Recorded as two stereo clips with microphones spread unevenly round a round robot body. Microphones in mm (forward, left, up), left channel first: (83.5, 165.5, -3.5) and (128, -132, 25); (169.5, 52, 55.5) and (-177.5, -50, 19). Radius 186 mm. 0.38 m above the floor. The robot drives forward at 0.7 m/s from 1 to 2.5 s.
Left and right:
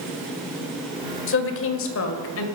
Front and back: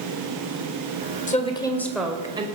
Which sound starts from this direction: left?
A woman speaking, at 1.3 s.